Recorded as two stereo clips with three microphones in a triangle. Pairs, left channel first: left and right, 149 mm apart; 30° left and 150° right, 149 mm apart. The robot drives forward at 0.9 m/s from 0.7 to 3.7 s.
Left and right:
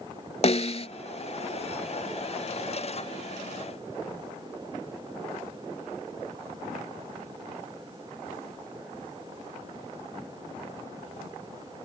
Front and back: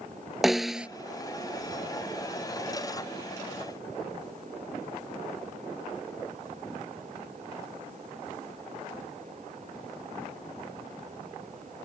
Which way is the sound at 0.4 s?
125° left.